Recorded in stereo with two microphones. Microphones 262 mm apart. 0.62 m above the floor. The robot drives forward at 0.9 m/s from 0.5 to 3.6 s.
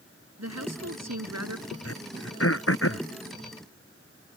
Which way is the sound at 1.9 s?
60° left (ahead or behind).